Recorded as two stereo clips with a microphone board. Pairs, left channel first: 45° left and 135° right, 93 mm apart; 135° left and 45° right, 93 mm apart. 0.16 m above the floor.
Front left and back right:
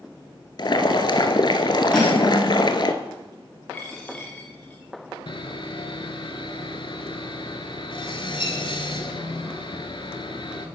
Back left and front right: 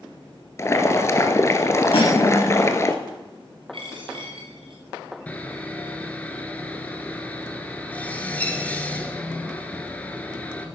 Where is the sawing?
65° left, 1.1 m.